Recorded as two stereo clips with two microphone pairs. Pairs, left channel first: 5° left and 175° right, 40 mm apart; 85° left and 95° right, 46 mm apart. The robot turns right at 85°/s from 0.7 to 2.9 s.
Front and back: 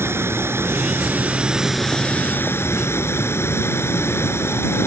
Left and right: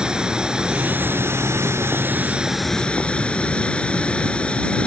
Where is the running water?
170° right; by 4.9 s 15° left.